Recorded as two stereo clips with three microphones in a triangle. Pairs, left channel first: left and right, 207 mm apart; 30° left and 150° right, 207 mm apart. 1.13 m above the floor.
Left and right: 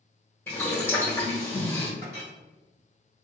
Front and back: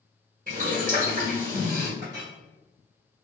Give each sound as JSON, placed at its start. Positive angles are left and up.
{"t": 0.5, "sound": "boiling", "azimuth_deg": 170, "distance_m": 1.4}
{"t": 2.0, "sound": "a clink", "azimuth_deg": -125, "distance_m": 1.5}